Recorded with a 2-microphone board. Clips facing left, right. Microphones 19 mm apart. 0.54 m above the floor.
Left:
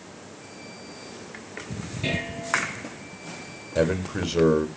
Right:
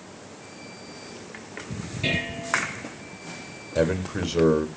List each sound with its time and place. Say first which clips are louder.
2.0 s dishes clattering: right 2 dB; 15° right (ahead or behind), 6.5 m
3.8 s a man speaking: even; 5° left (ahead or behind), 2.5 m